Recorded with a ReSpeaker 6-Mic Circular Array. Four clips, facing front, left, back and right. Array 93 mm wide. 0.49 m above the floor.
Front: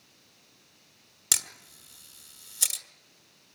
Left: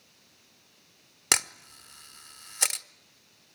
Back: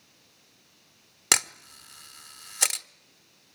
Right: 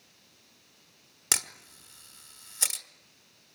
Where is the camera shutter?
150° left, 1.1 m.